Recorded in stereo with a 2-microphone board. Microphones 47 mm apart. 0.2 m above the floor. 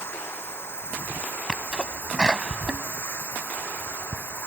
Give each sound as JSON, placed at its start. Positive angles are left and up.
{"t": 0.0, "sound": "running water", "side_deg": 50}
{"t": 1.5, "sound": "a sneeze", "side_deg": -20}